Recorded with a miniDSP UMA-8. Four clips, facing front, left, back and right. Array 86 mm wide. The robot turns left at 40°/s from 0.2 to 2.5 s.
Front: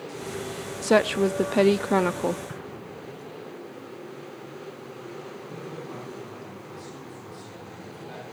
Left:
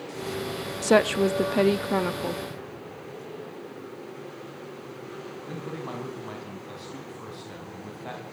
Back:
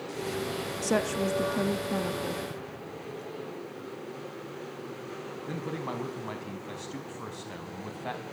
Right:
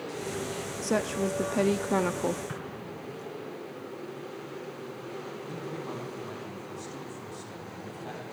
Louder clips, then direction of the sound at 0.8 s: Left 8 dB, front 8 dB; 55° left.